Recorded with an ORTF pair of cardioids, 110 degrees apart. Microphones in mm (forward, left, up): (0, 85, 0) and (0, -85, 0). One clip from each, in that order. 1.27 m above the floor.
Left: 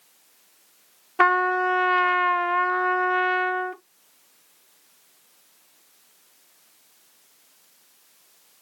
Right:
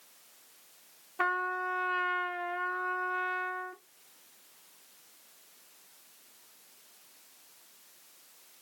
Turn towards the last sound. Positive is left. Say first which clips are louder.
# left 12 dB
turn(degrees=55)